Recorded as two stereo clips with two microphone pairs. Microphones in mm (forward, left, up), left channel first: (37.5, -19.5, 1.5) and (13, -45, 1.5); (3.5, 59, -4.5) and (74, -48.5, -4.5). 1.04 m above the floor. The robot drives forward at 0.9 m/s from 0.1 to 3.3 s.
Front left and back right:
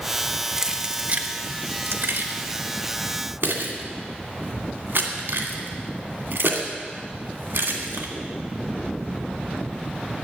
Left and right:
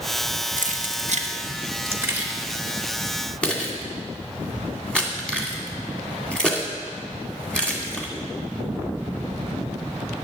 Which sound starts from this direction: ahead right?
Keys jangling, at 0.6 s.